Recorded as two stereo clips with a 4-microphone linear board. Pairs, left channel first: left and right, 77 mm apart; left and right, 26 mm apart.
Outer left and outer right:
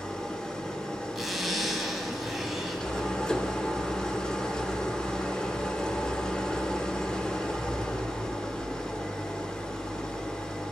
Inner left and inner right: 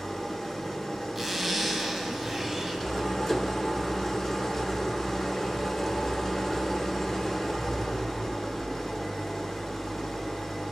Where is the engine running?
10° left (ahead or behind), 0.7 m.